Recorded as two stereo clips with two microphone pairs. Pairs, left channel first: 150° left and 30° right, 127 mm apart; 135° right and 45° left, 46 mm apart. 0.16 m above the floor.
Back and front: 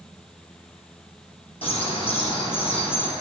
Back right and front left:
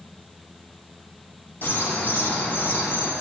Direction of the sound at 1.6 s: 175° right.